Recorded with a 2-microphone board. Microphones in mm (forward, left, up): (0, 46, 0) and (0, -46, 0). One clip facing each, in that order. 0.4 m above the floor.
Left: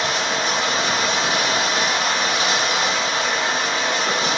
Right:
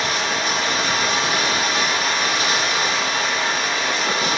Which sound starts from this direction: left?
Running water, at 0.0 s.